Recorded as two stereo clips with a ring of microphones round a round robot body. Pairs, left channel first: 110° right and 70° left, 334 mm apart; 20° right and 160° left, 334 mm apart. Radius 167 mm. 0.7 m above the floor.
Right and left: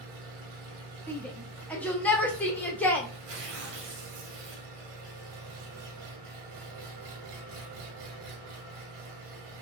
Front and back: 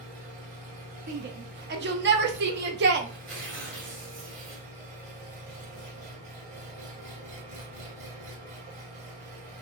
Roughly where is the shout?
Behind.